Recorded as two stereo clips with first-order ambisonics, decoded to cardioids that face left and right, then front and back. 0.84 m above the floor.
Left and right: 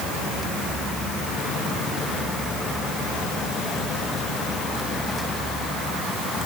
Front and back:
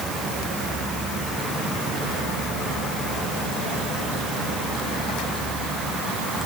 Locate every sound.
Only background noise.